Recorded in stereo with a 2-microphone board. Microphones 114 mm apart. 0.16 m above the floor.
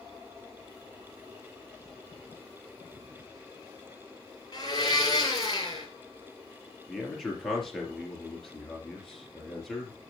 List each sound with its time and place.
4.5 s a blender: 40° left (ahead or behind), 2 m
6.9 s a man speaking: 5° left (ahead or behind), 3.5 m